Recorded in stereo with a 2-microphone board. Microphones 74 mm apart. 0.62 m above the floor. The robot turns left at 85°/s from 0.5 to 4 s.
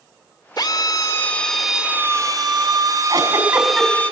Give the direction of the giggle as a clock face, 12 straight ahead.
4 o'clock.